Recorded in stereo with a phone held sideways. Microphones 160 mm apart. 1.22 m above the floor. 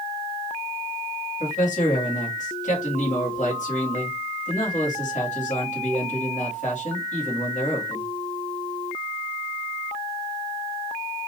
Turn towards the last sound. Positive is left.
turn(degrees=50)  # may be behind; listen again after turning